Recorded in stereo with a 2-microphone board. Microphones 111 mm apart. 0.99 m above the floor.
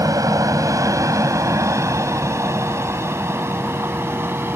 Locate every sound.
0.0 s an aircraft: 35° right (ahead or behind); by 4.6 s 20° right (ahead or behind)